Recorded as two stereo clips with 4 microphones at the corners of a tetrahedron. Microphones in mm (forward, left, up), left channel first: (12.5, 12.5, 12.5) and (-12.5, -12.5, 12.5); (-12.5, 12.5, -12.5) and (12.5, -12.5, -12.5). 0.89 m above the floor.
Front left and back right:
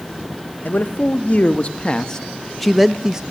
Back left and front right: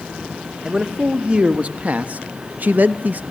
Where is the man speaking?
15° left, 1.5 m; by 3.2 s 65° right, 1.0 m.